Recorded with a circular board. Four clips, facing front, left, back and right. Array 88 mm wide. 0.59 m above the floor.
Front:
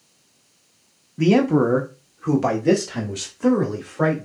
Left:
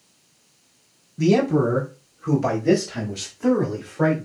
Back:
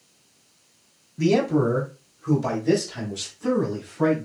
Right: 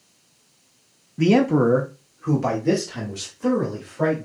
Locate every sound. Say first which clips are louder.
1.2 s a man speaking: right 1 dB, front 4 dB; 55° right, 1.1 m; by 4.3 s 10° left, 3 m